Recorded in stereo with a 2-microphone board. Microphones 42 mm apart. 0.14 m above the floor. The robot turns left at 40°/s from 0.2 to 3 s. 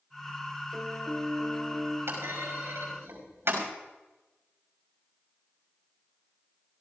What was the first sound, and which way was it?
A piano, 175° right.